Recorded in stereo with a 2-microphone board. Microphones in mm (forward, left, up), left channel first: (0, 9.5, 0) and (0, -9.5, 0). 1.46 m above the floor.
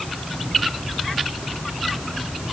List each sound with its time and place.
Only background noise.